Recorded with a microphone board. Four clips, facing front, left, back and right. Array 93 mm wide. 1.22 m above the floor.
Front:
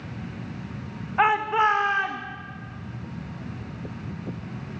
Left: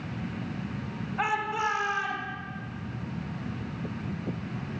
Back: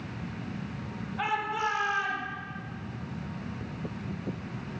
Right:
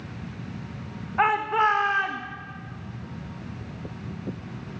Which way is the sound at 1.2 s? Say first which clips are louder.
Right 7 dB, front 10 dB; 35° right.